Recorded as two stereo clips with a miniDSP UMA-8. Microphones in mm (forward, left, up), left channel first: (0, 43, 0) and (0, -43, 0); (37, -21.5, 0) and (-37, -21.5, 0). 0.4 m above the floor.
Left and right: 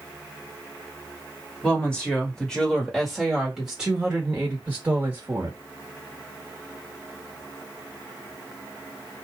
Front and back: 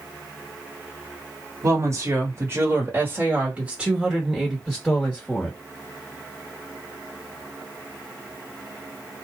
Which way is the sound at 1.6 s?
165° left.